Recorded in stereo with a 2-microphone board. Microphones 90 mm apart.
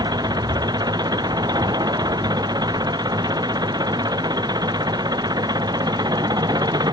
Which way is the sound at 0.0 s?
50° right (ahead or behind).